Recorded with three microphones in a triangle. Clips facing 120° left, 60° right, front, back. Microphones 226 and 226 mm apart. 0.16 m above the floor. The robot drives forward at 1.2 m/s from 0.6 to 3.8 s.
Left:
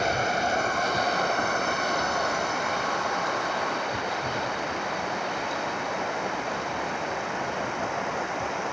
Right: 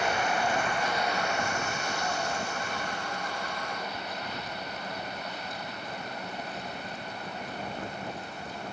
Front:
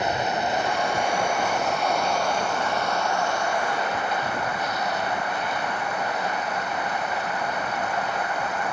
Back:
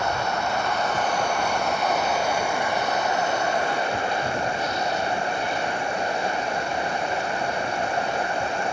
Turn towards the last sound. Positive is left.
turn(degrees=120)